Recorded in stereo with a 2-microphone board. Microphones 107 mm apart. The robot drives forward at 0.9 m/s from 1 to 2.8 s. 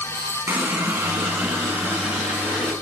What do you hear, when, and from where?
0.5 s a running tap: 15° right (ahead or behind), 1.7 m; by 2.7 s 10° right (ahead or behind), 3 m